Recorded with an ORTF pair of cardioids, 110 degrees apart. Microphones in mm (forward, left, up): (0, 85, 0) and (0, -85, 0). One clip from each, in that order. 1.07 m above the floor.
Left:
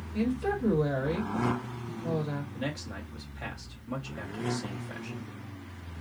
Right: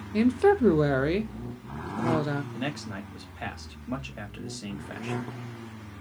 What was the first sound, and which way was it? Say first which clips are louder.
A woman speaking: right 9 dB; 65° right.